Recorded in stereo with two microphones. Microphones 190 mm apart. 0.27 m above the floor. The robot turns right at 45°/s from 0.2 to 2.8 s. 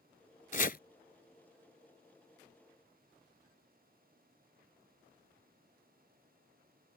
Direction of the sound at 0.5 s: 45° left (ahead or behind).